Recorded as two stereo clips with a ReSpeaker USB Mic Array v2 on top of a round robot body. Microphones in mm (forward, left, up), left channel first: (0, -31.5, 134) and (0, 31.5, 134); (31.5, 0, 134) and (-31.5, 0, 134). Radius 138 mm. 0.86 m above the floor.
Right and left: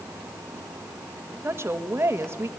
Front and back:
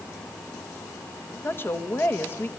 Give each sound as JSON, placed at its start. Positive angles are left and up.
{"t": 1.4, "sound": "a woman speaking", "azimuth_deg": 50, "distance_m": 1.7}